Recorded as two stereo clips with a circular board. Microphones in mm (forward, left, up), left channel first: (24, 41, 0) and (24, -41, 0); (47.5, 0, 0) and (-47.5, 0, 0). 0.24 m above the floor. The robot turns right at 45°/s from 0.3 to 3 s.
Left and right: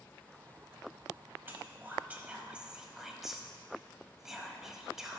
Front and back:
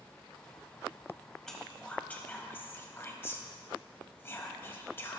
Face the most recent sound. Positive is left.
turn(degrees=-10)